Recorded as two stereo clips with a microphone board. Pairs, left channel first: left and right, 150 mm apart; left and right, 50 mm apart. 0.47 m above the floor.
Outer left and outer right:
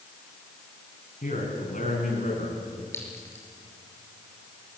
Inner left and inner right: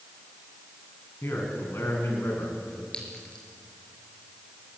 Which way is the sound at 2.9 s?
15° left (ahead or behind).